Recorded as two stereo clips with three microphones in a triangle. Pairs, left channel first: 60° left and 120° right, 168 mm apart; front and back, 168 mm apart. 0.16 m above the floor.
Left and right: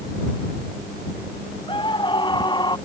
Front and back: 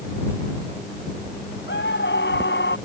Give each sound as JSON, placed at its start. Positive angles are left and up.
{"t": 1.7, "sound": "a scream", "azimuth_deg": -5}